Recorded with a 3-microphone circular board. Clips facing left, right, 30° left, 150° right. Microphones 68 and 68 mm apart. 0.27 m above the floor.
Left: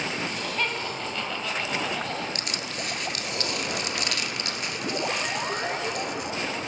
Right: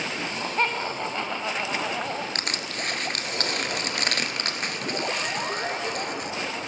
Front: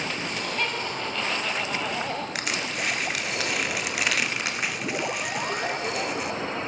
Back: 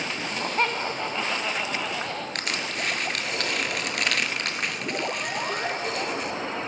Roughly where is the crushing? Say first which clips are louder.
Right 2 dB, front 1 dB; ahead right.